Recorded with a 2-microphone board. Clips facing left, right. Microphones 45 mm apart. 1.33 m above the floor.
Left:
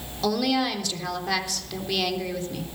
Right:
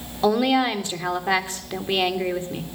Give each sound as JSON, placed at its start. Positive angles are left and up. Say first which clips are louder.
{"t": 0.2, "sound": "a woman speaking", "louder": "right 5 dB", "side_deg": -30, "distance_m": 3.0}